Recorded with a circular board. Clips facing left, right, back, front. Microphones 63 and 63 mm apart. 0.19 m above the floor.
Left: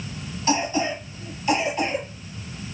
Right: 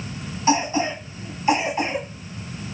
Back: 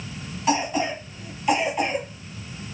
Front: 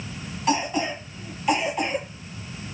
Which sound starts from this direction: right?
A cough, at 0.5 s.